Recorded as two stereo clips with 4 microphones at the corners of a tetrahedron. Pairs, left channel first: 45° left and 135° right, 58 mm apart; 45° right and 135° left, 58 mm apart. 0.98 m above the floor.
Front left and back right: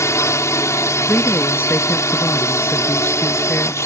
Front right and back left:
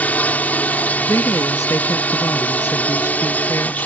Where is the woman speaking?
10° right.